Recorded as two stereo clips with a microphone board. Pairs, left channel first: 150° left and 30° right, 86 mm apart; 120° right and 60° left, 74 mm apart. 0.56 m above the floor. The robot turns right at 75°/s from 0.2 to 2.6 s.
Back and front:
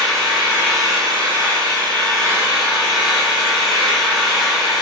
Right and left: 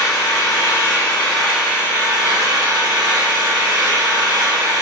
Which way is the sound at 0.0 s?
120° right.